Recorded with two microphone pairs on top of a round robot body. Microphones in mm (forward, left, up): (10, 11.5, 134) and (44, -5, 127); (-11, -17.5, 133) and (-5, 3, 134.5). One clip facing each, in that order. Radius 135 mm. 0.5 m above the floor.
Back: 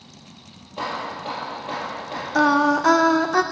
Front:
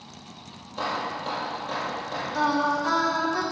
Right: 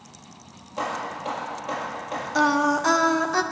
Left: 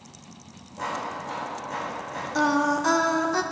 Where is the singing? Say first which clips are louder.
Back 7 dB, right 2 dB; 175° left, 0.7 m.